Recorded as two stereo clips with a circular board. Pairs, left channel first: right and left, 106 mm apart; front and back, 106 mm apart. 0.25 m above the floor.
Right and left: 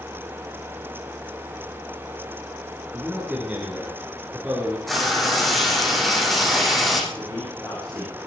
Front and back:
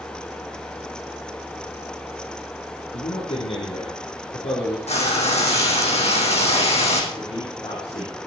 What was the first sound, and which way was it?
A man speaking, 5° left.